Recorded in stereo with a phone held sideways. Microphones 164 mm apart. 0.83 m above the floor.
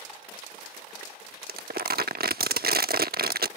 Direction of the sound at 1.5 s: 70° right (ahead or behind).